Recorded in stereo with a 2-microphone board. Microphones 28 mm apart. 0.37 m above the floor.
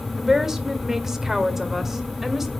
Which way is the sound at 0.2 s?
20° right (ahead or behind).